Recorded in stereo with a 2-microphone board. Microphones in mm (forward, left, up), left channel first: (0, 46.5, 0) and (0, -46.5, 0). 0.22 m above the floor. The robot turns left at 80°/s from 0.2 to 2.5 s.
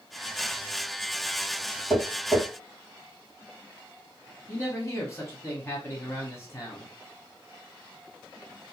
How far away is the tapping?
About 2 m.